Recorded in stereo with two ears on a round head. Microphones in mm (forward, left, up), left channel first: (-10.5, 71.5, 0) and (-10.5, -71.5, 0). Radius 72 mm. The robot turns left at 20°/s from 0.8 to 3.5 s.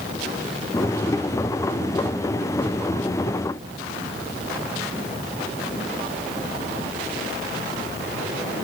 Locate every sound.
Only background noise.